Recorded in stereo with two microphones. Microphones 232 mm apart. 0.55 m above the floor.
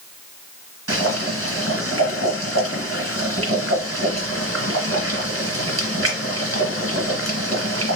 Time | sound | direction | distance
0.9 | boiling | 80° right | 2.0 m